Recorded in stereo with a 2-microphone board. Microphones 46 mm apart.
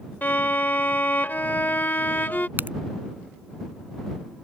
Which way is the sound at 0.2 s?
45° left (ahead or behind).